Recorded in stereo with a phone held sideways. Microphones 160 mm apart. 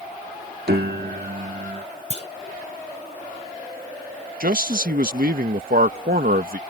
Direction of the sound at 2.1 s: 40° left (ahead or behind).